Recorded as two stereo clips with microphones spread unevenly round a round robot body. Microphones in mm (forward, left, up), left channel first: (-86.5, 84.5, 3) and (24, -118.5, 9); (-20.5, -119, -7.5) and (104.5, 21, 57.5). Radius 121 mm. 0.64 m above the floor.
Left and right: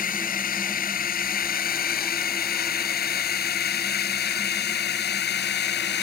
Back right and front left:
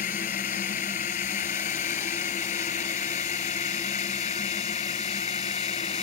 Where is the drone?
170° left; by 6.0 s 165° left.